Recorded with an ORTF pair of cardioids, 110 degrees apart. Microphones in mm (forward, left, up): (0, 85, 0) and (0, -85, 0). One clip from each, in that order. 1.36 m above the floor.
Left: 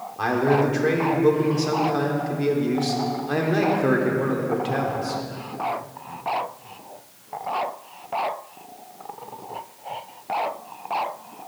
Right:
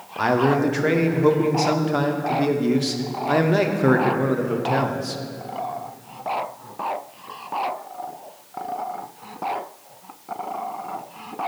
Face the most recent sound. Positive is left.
turn(degrees=-20)